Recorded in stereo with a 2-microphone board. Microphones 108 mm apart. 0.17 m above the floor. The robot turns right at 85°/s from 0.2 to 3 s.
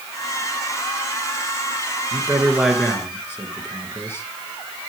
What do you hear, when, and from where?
2.1 s a man speaking: 50° right, 3 m; by 4.2 s 25° left, 3 m